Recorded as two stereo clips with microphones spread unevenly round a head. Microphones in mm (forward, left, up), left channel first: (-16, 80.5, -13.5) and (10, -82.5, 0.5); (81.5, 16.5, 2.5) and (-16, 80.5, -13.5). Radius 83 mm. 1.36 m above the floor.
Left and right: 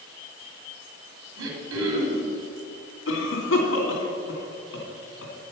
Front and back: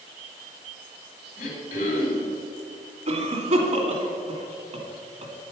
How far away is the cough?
About 2.5 m.